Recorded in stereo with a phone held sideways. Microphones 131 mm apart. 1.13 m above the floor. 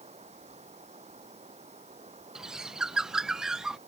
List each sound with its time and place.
0.0 s running water: 55° right (ahead or behind)
2.4 s a bird: 5° right (ahead or behind)